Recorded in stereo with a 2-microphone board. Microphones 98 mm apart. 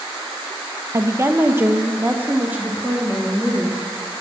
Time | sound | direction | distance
0.9 | a woman speaking | 30° right (ahead or behind) | 0.7 m